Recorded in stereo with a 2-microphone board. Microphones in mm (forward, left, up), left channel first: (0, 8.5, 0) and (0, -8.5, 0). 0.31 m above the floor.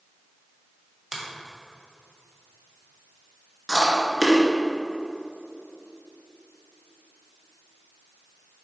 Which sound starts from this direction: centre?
Chewing, at 3.7 s.